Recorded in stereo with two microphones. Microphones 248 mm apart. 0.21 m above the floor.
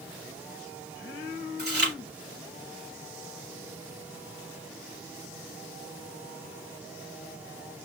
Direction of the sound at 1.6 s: 45° right (ahead or behind).